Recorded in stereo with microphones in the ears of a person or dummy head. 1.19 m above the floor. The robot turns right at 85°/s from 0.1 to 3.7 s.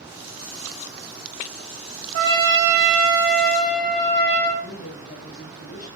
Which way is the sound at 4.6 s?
40° left (ahead or behind).